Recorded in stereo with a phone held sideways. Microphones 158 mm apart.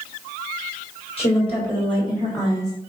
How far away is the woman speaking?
About 3.5 m.